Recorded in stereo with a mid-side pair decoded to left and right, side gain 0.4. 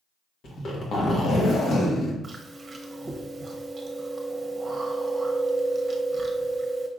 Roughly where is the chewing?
Ahead right.